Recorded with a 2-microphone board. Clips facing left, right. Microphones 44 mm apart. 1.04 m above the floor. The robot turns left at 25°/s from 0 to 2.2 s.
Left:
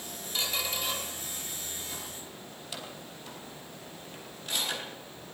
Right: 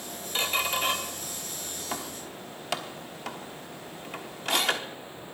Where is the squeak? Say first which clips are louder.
Right 6 dB; 30° right (ahead or behind), 1.1 m; by 4.8 s 70° right (ahead or behind), 1.1 m.